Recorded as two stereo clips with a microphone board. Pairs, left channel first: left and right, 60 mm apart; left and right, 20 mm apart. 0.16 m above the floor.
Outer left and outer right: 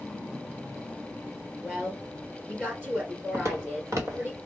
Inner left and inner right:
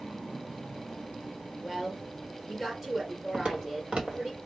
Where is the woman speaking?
30° right (ahead or behind), 3 m.